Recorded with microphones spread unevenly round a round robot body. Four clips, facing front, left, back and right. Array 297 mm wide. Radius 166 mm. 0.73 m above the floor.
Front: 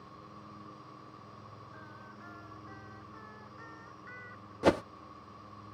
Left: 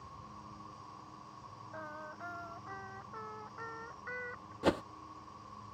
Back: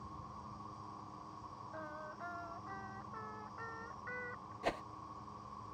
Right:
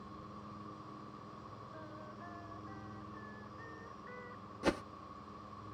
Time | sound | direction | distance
0.0 | an insect | 170° left | ?
1.7 | singing | 110° left | ?
4.6 | a whoosh | 10° left | ?